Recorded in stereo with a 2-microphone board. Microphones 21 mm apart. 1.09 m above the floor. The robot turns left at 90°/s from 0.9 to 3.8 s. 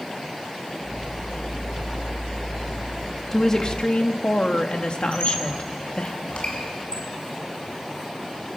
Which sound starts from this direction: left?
A squeak, at 5.1 s.